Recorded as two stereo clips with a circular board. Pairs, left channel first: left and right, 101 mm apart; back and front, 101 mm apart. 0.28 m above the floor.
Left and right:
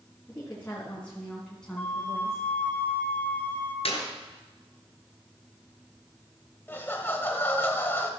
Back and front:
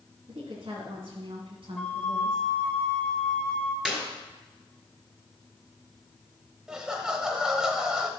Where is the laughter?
70° left, 0.9 m.